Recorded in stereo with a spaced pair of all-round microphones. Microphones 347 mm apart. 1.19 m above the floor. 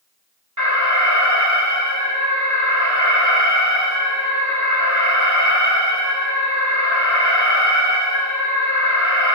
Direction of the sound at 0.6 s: 55° right (ahead or behind).